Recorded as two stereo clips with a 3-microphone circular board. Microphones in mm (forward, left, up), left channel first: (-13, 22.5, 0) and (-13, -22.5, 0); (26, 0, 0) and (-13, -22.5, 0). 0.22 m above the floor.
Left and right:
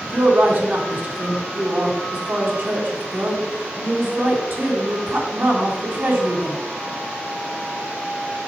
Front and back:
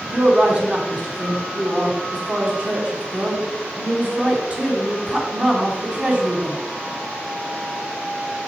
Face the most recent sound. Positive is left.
turn(degrees=-100)